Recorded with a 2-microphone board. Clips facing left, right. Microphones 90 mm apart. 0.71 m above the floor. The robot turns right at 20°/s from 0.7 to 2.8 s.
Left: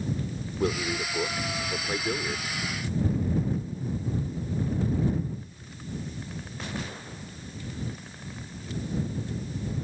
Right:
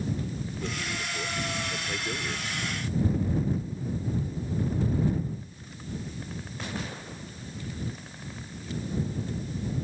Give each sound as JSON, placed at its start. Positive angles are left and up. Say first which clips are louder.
{"t": 0.6, "sound": "a man speaking", "louder": "left 10 dB", "azimuth_deg": 120}